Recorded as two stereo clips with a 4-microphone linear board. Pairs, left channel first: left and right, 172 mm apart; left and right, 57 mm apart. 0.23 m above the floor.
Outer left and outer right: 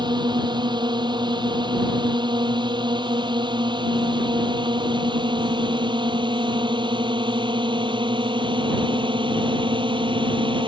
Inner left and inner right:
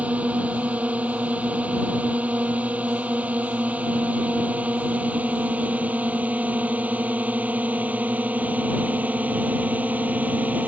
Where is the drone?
25° right (ahead or behind); by 10.7 s 30° right (ahead or behind).